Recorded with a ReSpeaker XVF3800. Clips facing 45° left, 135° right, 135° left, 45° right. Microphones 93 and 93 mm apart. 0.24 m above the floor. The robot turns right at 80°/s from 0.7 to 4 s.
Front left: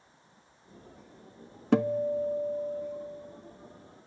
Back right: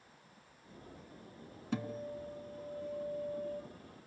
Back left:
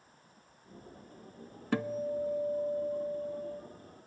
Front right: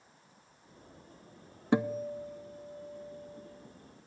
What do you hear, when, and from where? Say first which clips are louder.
1.7 s a guitar: front left 14 dB, front right 2 dB; 25° left, 0.5 m; by 3.6 s 175° left, 0.5 m